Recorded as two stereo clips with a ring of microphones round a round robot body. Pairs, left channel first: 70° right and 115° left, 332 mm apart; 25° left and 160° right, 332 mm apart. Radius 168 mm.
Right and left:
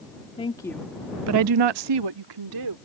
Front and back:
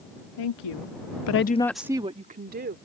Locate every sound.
0.4 s a woman speaking: 5° left; by 2.8 s 140° left